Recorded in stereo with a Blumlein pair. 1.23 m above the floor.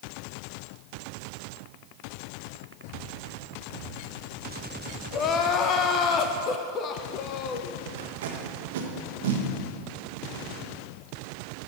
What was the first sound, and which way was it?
Crying, 30° left.